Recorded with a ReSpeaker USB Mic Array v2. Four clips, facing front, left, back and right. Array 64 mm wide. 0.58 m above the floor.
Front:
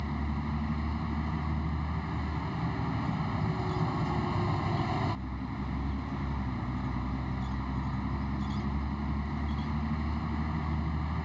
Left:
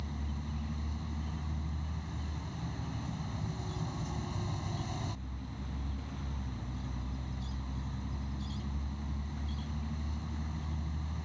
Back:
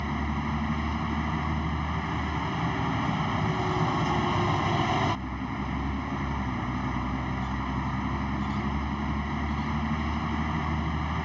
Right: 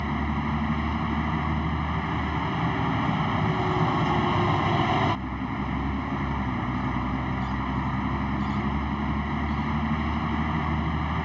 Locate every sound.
0.0 s a vehicle: 110° right